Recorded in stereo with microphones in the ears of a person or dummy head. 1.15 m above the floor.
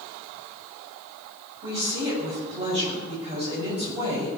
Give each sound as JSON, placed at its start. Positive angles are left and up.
{"t": 1.6, "sound": "a woman speaking", "side_deg": -20, "distance_m": 7.5}